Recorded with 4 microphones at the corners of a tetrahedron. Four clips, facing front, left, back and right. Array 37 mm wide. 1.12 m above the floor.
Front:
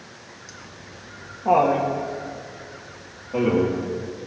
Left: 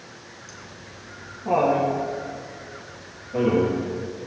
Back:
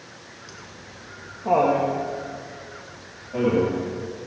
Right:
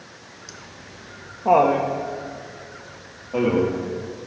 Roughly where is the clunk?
No clunk in this recording.